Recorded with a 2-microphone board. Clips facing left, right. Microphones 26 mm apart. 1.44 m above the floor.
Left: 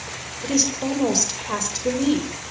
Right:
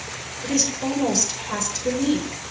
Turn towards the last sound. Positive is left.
turn(degrees=15)  # may be behind; listen again after turning